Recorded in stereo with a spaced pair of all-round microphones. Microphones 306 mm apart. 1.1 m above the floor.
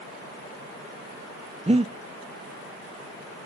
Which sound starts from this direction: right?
Breathing, at 1.7 s.